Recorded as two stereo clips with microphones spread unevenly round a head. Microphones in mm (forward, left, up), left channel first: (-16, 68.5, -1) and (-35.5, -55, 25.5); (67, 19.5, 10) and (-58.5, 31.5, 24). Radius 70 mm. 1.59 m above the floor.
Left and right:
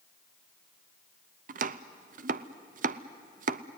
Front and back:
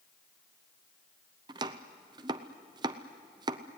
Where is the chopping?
125° right, 0.7 m.